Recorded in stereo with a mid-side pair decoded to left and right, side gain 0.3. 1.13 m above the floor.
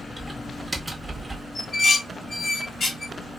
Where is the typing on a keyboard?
20° right, 1.8 m.